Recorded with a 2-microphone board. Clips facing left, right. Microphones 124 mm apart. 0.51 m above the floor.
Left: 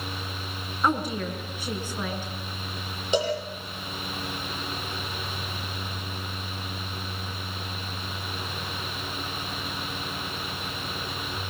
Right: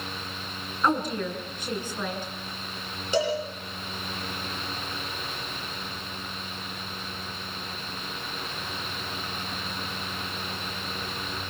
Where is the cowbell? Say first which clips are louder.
Even; 20° left (ahead or behind), 10 m.